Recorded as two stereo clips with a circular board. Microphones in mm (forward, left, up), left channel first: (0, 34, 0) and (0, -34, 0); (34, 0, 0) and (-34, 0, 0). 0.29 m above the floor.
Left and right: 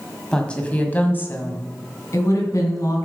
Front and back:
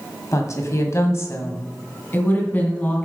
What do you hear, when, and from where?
0.3 s a woman speaking: 15° left, 1.6 m; by 3.0 s 65° left, 2.5 m